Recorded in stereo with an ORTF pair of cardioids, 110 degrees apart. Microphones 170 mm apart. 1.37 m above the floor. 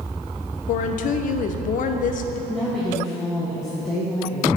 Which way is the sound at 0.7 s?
50° left.